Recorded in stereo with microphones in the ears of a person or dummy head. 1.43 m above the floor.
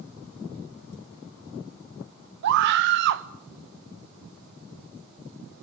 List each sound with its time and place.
2.4 s a scream: 65° right (ahead or behind), 1.2 m